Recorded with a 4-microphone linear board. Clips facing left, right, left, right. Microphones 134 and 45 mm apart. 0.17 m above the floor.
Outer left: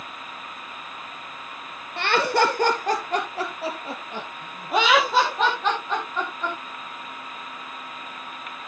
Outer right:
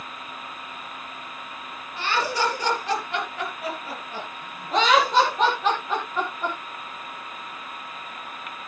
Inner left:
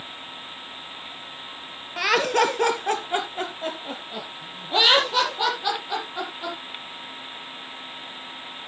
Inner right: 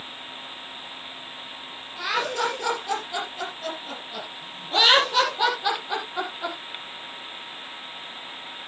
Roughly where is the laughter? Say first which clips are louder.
Outer left 4 dB, inner left 5 dB; left.